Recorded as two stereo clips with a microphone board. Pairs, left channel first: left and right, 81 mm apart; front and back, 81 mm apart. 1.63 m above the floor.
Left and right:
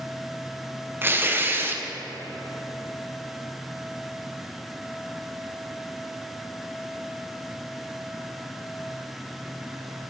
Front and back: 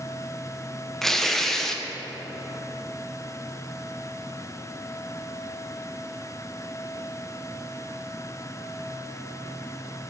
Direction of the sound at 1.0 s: 80° right.